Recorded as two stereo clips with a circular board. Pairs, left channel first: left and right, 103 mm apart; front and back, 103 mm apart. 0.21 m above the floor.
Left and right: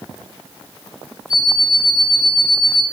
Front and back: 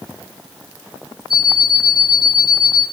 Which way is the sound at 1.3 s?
175° right.